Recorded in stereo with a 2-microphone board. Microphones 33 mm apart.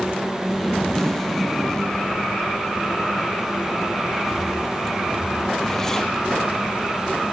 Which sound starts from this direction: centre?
A zipper, at 0.5 s.